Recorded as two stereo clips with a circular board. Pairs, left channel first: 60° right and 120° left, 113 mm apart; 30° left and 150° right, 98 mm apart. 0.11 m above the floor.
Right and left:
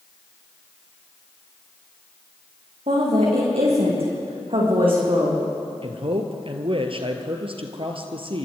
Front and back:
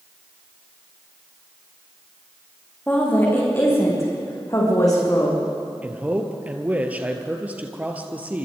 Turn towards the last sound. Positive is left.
turn(degrees=140)